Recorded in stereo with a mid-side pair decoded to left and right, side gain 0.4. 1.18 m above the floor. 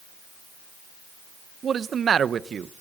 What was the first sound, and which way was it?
A man speaking, 55° right.